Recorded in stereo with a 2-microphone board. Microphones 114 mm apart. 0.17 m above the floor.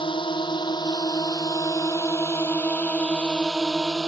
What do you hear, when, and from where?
0.0 s a drone: 45° left (ahead or behind); by 4.1 s 5° right (ahead or behind)